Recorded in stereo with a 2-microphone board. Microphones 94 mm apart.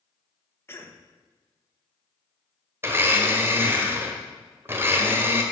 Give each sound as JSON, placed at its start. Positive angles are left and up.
{"t": 0.7, "sound": "a cough", "side_deg": 25, "distance_m": 1.6}
{"t": 2.8, "sound": "a blender", "side_deg": -25, "distance_m": 1.5}